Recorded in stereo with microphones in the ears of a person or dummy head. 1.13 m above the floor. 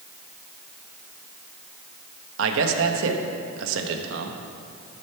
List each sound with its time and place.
2.4 s a man speaking: 75° right (ahead or behind), 1.2 m